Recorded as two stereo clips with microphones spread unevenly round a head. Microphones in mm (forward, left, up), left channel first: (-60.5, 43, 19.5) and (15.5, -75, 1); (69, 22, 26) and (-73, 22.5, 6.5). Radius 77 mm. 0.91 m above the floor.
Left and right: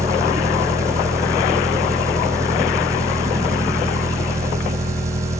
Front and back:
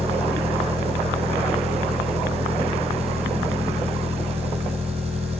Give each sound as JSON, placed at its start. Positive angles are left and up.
{"t": 0.0, "sound": "an engine running", "azimuth_deg": -125, "distance_m": 5.0}